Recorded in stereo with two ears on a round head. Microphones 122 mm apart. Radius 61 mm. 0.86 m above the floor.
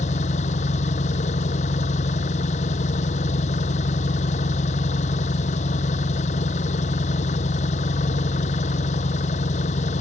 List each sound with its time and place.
0.0 s an engine running: 55° left (ahead or behind)